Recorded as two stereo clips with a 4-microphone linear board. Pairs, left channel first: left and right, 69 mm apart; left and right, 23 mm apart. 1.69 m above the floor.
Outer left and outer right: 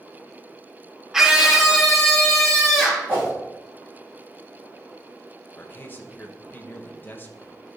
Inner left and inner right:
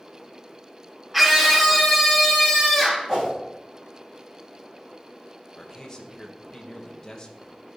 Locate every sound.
1.1 s a scream: 10° right (ahead or behind), 1.1 m; by 3.1 s centre (ahead or behind), 4 m
3.1 s a whoosh: 30° right (ahead or behind), 2.5 m
5.5 s a man speaking: 30° left (ahead or behind), 1.1 m